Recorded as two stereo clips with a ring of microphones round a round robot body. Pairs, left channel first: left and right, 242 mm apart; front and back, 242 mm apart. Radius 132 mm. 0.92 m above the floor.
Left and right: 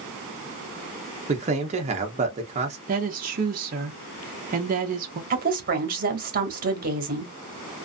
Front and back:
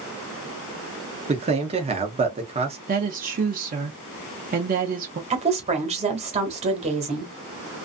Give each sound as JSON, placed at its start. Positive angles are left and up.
{"t": 1.3, "sound": "a man speaking", "azimuth_deg": -130, "distance_m": 0.7}
{"t": 2.9, "sound": "a woman speaking", "azimuth_deg": -135, "distance_m": 0.6}
{"t": 5.3, "sound": "a woman speaking", "azimuth_deg": -125, "distance_m": 1.2}